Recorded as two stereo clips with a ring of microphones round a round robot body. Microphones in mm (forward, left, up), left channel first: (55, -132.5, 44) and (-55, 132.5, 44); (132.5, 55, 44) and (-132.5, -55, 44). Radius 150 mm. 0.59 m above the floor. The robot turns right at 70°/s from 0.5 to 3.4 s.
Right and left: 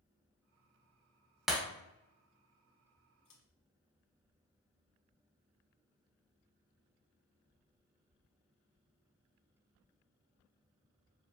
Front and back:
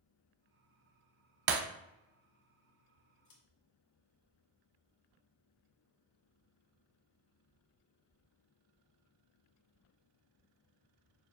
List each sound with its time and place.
1.5 s breaking glass: 160° right, 0.6 m; by 1.6 s 150° right, 0.6 m
3.2 s scissors: 25° right, 1.6 m; by 3.4 s 15° right, 1.6 m